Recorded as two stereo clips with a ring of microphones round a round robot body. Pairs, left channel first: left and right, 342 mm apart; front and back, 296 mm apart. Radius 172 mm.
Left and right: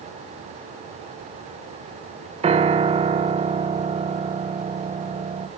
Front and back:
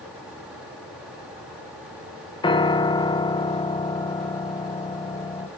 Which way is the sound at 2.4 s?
50° right.